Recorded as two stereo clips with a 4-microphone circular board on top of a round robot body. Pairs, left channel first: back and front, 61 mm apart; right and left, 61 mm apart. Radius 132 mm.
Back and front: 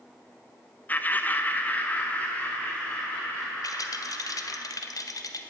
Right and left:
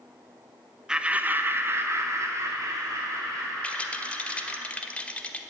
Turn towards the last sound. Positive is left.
turn(degrees=-160)